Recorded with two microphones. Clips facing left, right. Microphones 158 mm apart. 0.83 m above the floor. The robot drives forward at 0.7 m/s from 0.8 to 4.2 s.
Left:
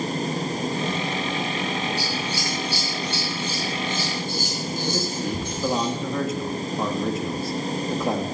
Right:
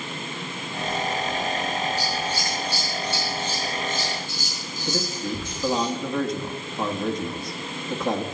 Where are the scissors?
80° left, 4.5 m; by 5.9 s 60° left (ahead or behind), 5 m.